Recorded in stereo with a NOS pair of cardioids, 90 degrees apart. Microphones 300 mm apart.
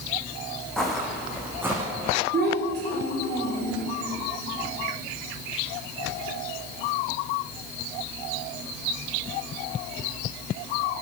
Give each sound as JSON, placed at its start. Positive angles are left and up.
{"t": 0.8, "sound": "footsteps", "azimuth_deg": 0, "distance_m": 3.5}
{"t": 2.3, "sound": "a child speaking", "azimuth_deg": -35, "distance_m": 3.0}